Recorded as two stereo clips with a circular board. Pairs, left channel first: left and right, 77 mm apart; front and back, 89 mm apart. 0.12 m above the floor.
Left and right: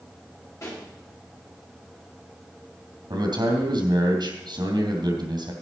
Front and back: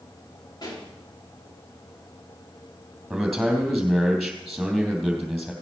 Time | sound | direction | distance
0.6 | a pop | 40° left | 7.5 m
3.1 | a man speaking | 90° right | 3 m